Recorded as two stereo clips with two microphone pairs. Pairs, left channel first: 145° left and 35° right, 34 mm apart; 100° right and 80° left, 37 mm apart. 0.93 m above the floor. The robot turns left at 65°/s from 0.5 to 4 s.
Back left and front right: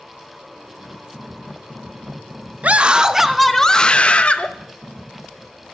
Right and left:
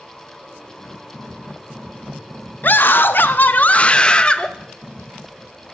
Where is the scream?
70° right, 0.7 m; by 4.5 s 160° right, 0.7 m.